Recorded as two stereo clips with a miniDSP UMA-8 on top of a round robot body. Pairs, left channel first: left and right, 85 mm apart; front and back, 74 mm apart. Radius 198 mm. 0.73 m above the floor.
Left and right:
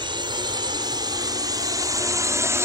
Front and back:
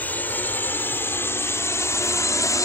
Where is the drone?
65° right; by 2.6 s 35° right.